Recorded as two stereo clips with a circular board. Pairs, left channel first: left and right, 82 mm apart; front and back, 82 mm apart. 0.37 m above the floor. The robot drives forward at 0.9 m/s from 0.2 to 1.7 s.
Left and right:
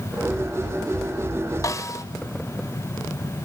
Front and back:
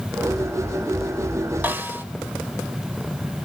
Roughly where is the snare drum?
Behind left.